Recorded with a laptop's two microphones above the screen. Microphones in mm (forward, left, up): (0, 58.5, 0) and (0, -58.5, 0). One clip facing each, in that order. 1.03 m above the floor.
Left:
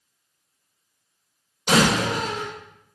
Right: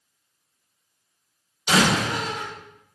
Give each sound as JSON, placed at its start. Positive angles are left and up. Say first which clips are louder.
{"t": 1.7, "sound": "a door slam", "louder": "left 1 dB", "side_deg": 50, "distance_m": 2.0}